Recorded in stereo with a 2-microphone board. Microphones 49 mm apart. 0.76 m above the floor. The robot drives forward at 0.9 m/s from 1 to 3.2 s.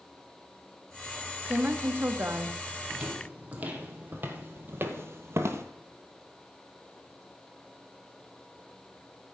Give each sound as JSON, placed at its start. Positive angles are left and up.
{"t": 1.4, "sound": "a woman speaking", "side_deg": -35, "distance_m": 1.4}
{"t": 2.9, "sound": "footsteps", "side_deg": -25, "distance_m": 1.7}